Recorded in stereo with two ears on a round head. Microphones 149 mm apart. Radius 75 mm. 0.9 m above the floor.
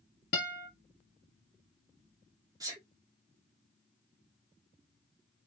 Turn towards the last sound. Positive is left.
turn(degrees=-20)  # may be behind; listen again after turning